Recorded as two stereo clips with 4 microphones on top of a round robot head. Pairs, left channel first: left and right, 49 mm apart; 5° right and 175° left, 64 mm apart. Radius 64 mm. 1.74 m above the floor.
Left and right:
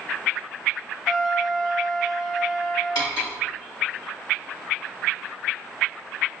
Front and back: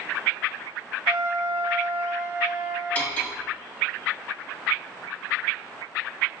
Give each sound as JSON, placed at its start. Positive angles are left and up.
{"t": 1.1, "sound": "a trumpet", "azimuth_deg": 175, "distance_m": 1.6}
{"t": 3.0, "sound": "cutlery clinking", "azimuth_deg": 55, "distance_m": 1.7}